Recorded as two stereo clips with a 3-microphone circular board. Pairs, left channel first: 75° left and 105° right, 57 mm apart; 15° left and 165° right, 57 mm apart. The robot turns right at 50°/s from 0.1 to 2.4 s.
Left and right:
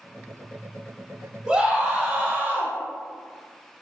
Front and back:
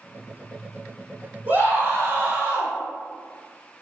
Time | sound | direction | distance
1.5 | a scream | 170° right | 1.3 m